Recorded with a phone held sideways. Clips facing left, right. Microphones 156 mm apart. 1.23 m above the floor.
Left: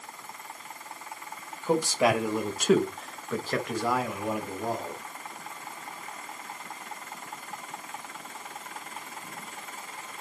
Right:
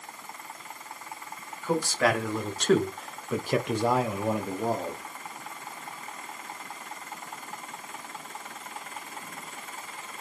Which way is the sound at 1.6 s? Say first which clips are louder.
Left 2 dB; 20° left (ahead or behind).